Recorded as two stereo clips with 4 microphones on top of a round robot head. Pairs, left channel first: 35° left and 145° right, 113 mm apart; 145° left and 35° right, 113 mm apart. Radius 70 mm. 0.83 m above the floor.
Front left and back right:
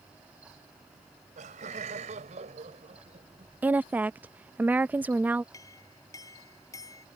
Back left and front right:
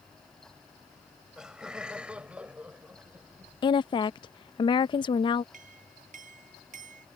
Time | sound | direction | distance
0.9 | laughter | 125° right | ?
3.6 | a woman speaking | 150° left | ?
5.5 | a clink | 25° right | ?